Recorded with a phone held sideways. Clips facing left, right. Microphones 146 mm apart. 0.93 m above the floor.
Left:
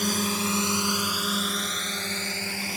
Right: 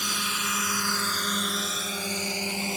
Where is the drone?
50° left (ahead or behind); by 2.8 s 25° right (ahead or behind).